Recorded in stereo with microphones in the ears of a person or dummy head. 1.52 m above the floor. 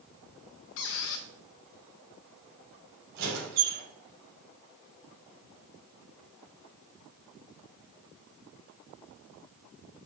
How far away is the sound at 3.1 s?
About 3.5 m.